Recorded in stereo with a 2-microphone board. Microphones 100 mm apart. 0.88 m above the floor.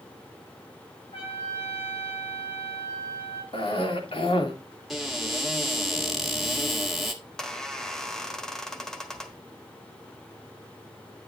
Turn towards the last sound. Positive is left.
turn(degrees=5)  # may be behind; listen again after turning